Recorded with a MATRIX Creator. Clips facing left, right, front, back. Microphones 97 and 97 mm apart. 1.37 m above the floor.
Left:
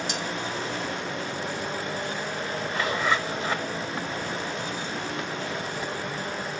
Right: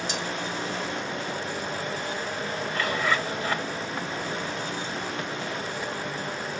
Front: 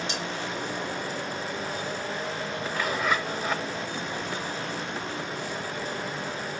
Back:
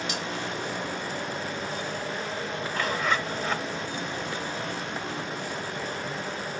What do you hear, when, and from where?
0.1 s cutlery clinking: 60° left, 2 m
2.7 s a zipper: 70° left, 1.2 m